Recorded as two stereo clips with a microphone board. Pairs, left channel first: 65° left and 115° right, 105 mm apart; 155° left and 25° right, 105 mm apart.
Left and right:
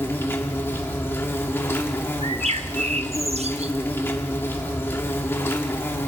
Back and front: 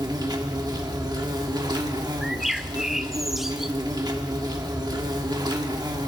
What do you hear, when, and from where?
0.0 s an insect: 10° left, 1.2 m
2.2 s a bird: 110° right, 0.5 m